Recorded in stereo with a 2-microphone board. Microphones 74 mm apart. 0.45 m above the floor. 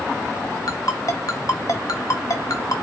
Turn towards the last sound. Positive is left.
turn(degrees=55)  # may be behind; listen again after turning